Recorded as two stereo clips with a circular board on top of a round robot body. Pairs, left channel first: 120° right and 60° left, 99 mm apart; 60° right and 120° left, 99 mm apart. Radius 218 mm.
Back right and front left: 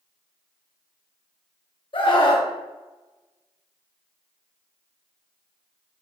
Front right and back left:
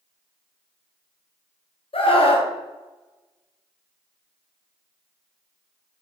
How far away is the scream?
About 2.5 m.